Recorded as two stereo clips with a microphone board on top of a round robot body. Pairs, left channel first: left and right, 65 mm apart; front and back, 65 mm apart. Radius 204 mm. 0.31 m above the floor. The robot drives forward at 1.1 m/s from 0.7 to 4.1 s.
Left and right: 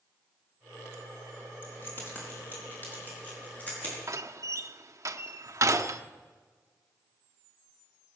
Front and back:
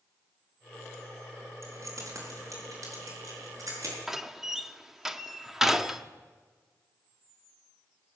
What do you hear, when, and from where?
1.6 s keys jangling: 145° left, 4 m; by 4.0 s 155° left, 6.5 m
4.1 s a door slam: 95° right, 1.1 m